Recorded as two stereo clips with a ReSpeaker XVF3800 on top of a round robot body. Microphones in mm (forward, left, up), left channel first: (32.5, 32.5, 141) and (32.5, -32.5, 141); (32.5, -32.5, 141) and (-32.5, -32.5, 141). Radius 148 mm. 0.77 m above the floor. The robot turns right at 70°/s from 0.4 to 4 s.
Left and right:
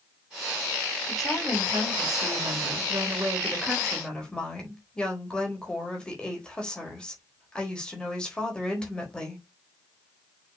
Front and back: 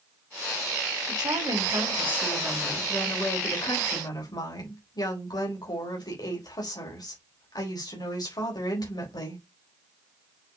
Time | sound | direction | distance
1.1 | a woman speaking | 170° left | 4 m